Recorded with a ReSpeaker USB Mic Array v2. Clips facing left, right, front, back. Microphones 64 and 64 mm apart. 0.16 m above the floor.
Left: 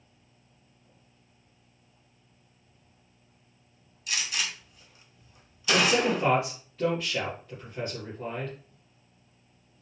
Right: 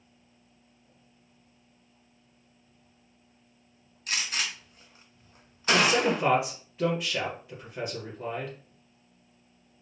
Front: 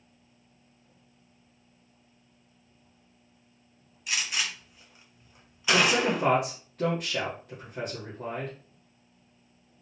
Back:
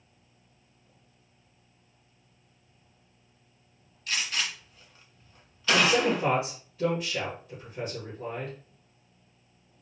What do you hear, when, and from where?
4.1 s a gunshot: 75° right, 1.2 m
5.7 s a man speaking: 20° right, 2.5 m